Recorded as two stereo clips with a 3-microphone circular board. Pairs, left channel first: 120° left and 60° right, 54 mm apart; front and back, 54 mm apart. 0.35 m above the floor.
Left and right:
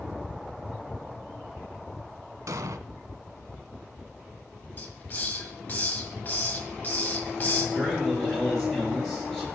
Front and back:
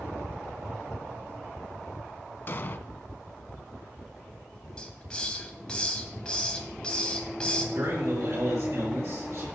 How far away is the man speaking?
About 6.5 m.